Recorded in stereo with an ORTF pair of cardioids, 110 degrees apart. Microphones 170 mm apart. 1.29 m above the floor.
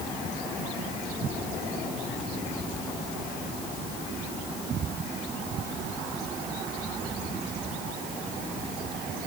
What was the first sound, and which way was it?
Only background noise.